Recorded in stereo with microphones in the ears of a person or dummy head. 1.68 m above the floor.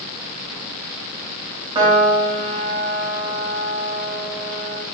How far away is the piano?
About 1.0 m.